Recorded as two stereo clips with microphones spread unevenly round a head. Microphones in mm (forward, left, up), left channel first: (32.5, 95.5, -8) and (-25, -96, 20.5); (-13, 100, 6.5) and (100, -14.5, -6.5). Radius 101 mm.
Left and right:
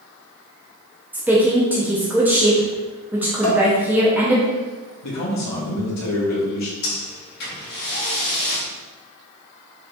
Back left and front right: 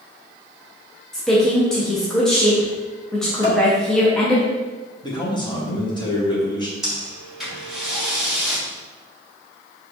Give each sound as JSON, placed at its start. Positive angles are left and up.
{"t": 1.1, "sound": "a woman speaking", "azimuth_deg": -155, "distance_m": 0.6}
{"t": 3.4, "sound": "dishes clattering", "azimuth_deg": 75, "distance_m": 1.9}
{"t": 5.0, "sound": "a man speaking", "azimuth_deg": 70, "distance_m": 1.0}
{"t": 6.8, "sound": "breathing", "azimuth_deg": 45, "distance_m": 1.5}